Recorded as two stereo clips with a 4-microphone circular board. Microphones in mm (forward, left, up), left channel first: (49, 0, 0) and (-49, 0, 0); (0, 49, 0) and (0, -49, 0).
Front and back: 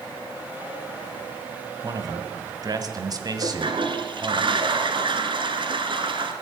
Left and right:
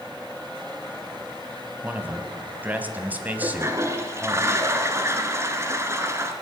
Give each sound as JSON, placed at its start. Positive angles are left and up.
{"t": 1.8, "sound": "a man speaking", "azimuth_deg": -155, "distance_m": 1.5}
{"t": 3.4, "sound": "a toilet flushing", "azimuth_deg": -150, "distance_m": 1.4}